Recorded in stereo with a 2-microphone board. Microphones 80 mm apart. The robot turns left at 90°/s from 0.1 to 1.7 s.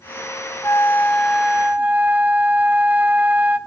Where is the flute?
60° left, 0.7 m; by 3.6 s 35° right, 0.7 m.